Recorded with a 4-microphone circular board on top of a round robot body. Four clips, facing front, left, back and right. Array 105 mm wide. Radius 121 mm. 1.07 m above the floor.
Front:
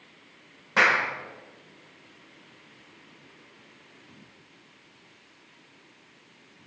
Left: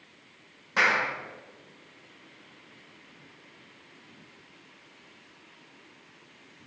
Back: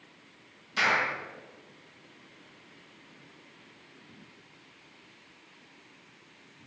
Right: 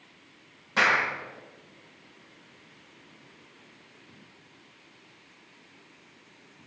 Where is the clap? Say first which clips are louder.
Right 1 dB, front 5 dB; 5° left, 4 m.